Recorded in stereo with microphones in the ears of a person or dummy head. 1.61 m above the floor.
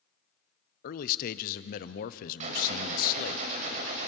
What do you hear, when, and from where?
0.8 s a man speaking: 50° left (ahead or behind), 0.8 m
2.4 s a gunshot: 45° right (ahead or behind), 2.5 m